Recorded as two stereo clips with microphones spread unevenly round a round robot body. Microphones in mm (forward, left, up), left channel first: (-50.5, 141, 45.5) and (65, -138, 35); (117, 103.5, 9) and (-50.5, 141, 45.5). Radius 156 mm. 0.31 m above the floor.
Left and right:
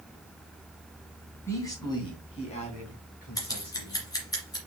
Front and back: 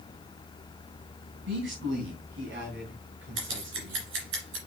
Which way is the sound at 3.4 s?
170° right.